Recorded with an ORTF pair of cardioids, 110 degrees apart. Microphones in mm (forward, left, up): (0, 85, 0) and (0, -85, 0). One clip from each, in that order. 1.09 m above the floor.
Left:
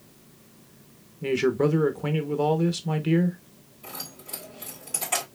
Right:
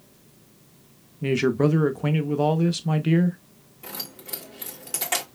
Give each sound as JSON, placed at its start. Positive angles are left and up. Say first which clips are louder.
{"t": 1.2, "sound": "a man speaking", "louder": "right 1 dB", "azimuth_deg": -15, "distance_m": 0.7}
{"t": 3.8, "sound": "keys jangling", "louder": "right 2 dB", "azimuth_deg": -60, "distance_m": 2.5}